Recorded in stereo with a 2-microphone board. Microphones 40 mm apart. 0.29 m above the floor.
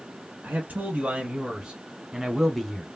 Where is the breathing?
I don't hear breathing.